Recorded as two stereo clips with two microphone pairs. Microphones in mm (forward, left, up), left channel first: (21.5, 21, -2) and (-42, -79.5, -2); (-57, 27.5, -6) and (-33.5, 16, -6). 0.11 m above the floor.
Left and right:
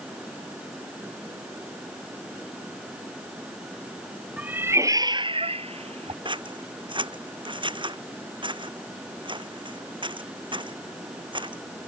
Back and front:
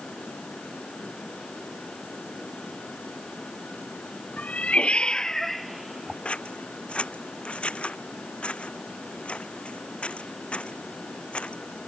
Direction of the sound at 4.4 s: 160° left.